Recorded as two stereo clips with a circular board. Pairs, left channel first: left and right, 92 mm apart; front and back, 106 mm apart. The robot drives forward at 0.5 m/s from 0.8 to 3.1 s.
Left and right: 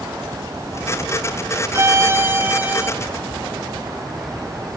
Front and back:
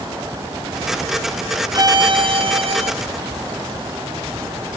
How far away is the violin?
About 0.6 m.